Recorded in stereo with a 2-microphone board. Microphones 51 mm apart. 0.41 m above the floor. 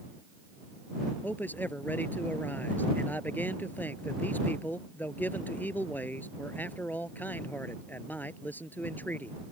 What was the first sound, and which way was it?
A man speaking, 40° left (ahead or behind).